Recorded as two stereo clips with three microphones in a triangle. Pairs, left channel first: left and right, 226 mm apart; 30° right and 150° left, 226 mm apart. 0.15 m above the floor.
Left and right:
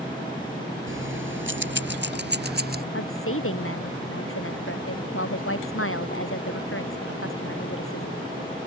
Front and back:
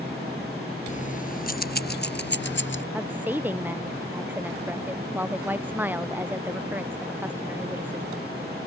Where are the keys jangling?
85° right; by 2.8 s 50° right.